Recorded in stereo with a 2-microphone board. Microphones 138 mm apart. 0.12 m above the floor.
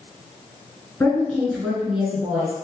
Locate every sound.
1.0 s a woman speaking: 15° left (ahead or behind), 1.1 m; by 2.5 s 10° right (ahead or behind), 1.6 m